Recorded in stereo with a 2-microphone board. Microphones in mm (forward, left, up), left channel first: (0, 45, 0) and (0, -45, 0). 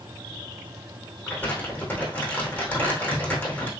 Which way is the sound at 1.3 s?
20° left (ahead or behind).